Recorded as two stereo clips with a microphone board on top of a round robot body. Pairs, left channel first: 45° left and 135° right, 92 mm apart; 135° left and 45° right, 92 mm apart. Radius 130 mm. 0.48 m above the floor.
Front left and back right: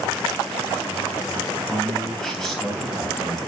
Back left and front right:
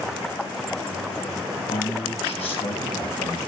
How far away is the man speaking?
About 4.5 m.